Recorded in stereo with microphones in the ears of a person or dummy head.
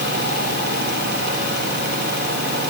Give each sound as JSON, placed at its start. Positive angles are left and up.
{"t": 0.0, "sound": "a fan", "side_deg": -60, "distance_m": 3.5}